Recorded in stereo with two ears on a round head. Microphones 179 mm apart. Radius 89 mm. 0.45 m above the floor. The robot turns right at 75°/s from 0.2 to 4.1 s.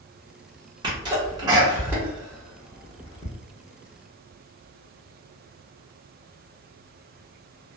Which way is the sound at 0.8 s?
20° right (ahead or behind).